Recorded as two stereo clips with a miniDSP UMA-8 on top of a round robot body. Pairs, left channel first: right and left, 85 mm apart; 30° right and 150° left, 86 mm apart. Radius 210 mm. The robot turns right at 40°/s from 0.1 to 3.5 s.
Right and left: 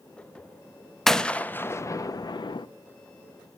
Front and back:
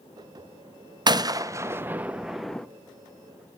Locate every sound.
1.1 s a gunshot: 175° right, 0.9 m; by 2.7 s 110° right, 0.9 m